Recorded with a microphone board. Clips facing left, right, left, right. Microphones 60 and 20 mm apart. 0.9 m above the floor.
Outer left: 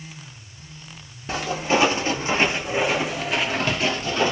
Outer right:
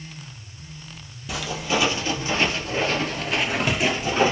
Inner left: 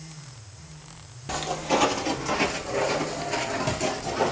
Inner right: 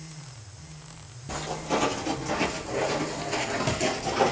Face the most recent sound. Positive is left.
turn(degrees=-25)  # may be behind; listen again after turning